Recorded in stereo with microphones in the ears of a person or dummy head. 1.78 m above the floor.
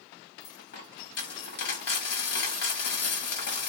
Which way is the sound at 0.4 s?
55° left (ahead or behind).